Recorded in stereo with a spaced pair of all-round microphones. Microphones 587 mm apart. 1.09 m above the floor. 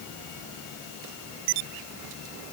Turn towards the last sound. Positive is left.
No sound to turn to.